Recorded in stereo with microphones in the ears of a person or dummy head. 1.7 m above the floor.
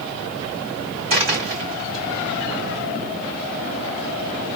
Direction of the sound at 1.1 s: 45° right (ahead or behind).